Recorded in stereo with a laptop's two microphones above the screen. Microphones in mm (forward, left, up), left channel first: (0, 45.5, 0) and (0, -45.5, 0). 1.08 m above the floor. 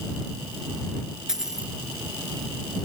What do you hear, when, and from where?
1.3 s a dropped coin: 5° right (ahead or behind)